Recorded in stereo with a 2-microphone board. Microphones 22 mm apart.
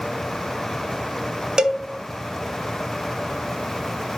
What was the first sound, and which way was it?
A cowbell, 30° right (ahead or behind).